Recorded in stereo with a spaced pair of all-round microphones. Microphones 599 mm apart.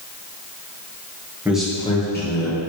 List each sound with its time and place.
1.4 s a man speaking: 5° right (ahead or behind), 1.7 m; by 2.6 s 25° left (ahead or behind), 1.8 m